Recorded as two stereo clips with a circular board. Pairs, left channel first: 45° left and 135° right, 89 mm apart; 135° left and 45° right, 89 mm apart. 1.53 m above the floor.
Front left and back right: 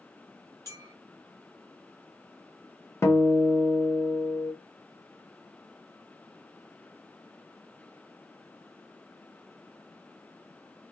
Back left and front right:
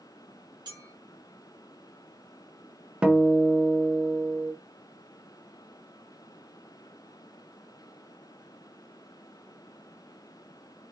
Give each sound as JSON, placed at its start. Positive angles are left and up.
{"t": 0.7, "sound": "a clink", "azimuth_deg": -10, "distance_m": 1.5}
{"t": 3.0, "sound": "a guitar", "azimuth_deg": 20, "distance_m": 0.6}